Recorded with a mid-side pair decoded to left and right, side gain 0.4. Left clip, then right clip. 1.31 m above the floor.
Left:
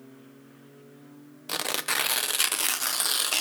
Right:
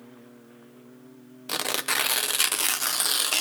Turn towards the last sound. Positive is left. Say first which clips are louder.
# right 2 dB
turn(degrees=-5)